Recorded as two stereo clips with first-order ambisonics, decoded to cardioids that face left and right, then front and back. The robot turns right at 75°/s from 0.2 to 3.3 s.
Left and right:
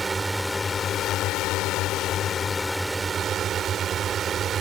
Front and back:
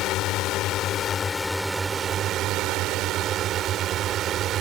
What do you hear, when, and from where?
0.0 s a drone: 15° right; by 4.6 s 145° right